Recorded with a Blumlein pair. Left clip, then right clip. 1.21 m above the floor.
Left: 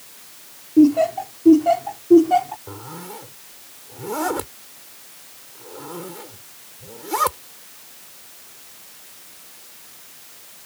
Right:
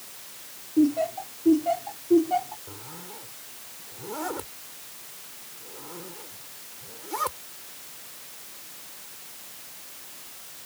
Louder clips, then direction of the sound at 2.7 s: Left 7 dB; 65° left.